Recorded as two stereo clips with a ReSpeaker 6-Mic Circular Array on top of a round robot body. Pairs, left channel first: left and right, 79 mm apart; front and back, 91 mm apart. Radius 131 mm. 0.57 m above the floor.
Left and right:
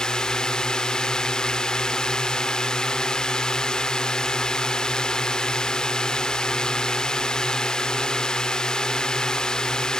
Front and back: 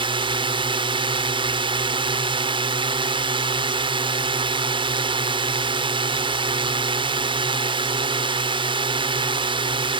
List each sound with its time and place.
0.0 s a drone: 170° left